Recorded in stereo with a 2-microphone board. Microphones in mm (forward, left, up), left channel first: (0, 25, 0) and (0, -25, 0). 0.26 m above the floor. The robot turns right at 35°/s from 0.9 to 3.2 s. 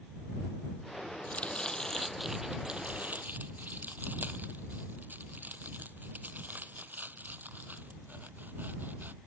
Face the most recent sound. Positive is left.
turn(degrees=-40)  # may be behind; listen again after turning